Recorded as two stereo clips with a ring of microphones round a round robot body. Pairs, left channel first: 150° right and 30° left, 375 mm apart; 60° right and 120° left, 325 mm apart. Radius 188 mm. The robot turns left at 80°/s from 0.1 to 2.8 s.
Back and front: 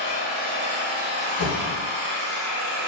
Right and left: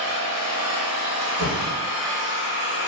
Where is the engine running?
175° right, 1.7 m; by 2.9 s 30° right, 1.7 m.